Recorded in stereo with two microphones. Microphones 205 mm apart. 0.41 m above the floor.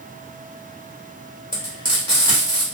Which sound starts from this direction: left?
Frying, at 1.5 s.